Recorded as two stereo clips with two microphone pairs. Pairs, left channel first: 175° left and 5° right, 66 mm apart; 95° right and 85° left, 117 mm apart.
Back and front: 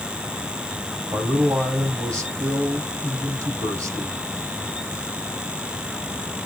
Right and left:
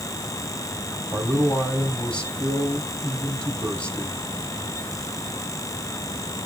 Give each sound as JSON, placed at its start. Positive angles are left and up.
{"t": 1.1, "sound": "a man speaking", "azimuth_deg": -15, "distance_m": 3.0}